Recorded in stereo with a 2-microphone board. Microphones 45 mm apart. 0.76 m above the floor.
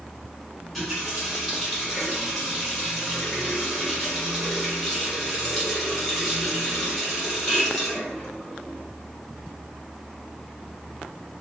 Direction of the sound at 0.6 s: 10° left (ahead or behind).